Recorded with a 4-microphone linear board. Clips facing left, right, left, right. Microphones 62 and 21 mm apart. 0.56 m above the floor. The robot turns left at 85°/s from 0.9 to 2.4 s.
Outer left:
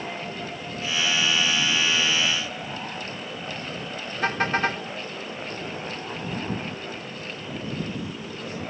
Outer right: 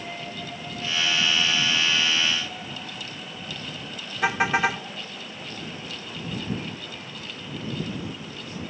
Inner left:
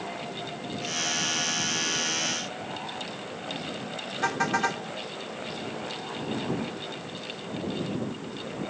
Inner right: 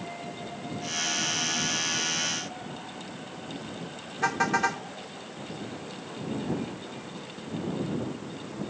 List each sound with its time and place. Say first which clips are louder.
4.2 s a car horn: outer right 2 dB, inner right 1 dB; 10° right (ahead or behind)